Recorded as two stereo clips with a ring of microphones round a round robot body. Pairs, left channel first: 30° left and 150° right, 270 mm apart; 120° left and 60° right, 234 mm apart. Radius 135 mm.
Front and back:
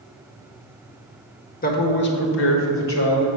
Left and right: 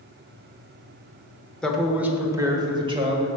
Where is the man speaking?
35° left, 1.0 m; by 3.3 s straight ahead, 1.6 m.